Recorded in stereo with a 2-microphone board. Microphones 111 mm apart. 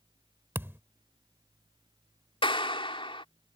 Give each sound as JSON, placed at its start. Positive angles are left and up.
{"t": 0.6, "sound": "a thud", "side_deg": -20}
{"t": 2.4, "sound": "a clap", "side_deg": 50}